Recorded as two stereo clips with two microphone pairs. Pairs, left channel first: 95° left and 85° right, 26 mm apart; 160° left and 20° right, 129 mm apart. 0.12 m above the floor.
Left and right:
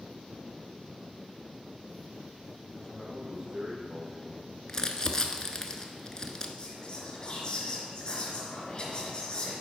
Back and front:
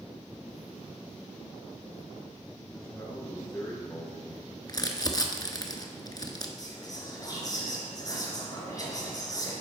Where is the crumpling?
135° left, 0.8 m.